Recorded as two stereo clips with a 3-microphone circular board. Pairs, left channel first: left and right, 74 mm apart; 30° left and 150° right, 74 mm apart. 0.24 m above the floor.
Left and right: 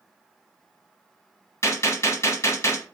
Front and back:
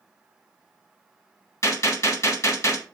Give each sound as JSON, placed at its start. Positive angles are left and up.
{"t": 1.6, "sound": "a gunshot", "azimuth_deg": 60, "distance_m": 0.9}